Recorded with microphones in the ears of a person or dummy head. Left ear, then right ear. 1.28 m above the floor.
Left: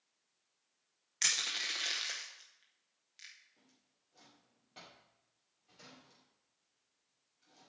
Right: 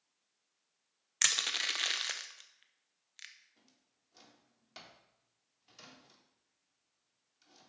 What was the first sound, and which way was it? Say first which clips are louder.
Crushing: right 2 dB; 30° right (ahead or behind).